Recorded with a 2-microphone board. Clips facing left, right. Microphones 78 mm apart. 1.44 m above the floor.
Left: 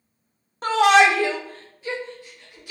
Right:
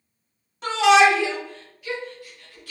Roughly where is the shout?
Left.